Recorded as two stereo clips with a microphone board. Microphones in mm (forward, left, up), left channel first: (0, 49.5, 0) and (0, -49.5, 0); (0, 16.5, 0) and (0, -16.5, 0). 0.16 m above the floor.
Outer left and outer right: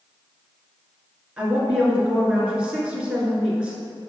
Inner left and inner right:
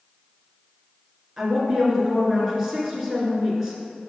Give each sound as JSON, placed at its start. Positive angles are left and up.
{"t": 1.4, "sound": "a woman speaking", "side_deg": -10, "distance_m": 1.7}